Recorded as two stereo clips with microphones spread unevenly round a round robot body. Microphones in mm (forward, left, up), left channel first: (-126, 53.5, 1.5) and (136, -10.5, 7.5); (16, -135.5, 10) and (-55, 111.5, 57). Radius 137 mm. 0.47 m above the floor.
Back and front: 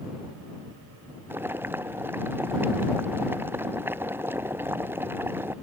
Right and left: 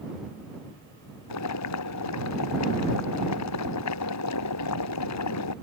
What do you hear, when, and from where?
1.3 s boiling: 95° right